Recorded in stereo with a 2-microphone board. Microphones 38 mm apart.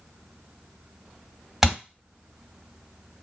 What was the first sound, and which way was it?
A thud, 5° right (ahead or behind).